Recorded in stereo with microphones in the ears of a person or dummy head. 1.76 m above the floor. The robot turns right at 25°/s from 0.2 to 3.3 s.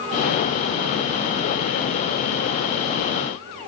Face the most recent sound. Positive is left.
No sound to turn to.